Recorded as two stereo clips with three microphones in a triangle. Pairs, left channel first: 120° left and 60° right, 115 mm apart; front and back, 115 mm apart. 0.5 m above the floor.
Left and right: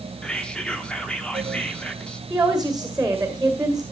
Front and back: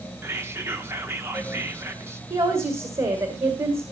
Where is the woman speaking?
140° right, 1.9 m.